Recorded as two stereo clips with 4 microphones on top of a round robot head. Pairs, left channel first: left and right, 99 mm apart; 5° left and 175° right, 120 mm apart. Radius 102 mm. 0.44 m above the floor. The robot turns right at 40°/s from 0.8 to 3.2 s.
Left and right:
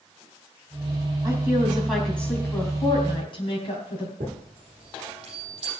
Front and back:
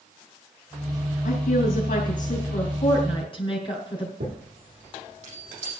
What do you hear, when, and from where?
1.2 s a woman speaking: 25° right, 3 m; by 4.1 s 50° left, 3 m
4.2 s a chime: 135° right, 7.5 m